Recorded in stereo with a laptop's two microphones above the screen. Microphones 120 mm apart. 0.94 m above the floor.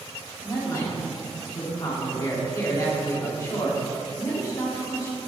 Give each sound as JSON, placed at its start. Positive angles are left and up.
{"t": 0.4, "sound": "a man speaking", "side_deg": 30, "distance_m": 2.5}